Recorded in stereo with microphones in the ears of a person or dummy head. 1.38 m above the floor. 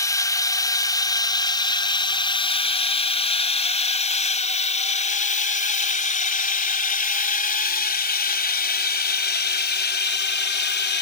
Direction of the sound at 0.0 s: 15° left (ahead or behind).